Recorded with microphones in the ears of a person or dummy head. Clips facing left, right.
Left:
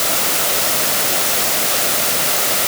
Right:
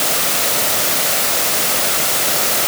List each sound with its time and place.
Only background noise.